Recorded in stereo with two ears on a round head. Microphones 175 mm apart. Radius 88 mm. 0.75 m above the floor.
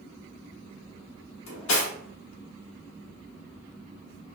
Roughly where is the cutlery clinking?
Left.